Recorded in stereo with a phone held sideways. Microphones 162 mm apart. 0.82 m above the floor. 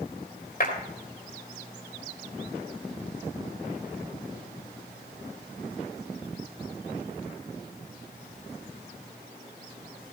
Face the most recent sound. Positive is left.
turn(degrees=55)  # may be behind; listen again after turning